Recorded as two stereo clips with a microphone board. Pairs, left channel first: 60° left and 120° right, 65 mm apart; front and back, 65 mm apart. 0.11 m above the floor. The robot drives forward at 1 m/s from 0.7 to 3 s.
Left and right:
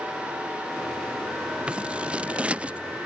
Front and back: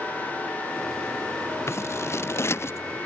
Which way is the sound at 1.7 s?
45° right.